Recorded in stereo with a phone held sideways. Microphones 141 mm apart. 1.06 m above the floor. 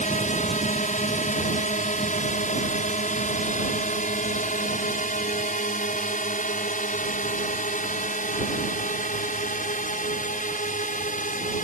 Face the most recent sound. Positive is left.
turn(degrees=70)  # may be behind; listen again after turning